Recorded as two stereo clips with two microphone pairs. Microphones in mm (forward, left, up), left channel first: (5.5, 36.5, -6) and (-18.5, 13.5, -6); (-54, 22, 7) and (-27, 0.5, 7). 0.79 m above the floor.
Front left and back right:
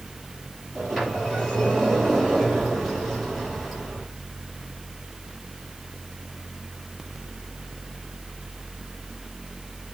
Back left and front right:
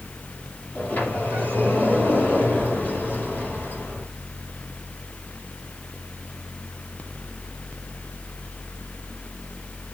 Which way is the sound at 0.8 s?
130° left.